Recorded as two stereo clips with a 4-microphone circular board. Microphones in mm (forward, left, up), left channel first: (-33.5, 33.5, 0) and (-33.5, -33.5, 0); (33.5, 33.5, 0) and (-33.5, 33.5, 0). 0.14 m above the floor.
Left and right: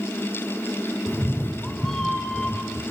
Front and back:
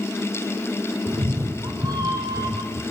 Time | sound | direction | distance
1.1 | a cat meowing | straight behind | 2 m